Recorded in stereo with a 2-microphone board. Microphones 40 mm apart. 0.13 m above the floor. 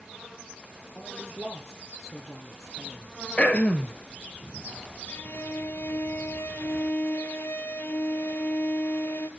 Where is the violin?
70° left (ahead or behind), 1.0 m.